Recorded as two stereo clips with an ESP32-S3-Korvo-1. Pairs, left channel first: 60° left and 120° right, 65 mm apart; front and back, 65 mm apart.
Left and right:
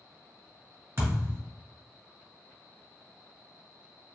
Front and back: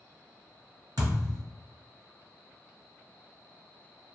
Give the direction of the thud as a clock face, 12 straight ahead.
6 o'clock.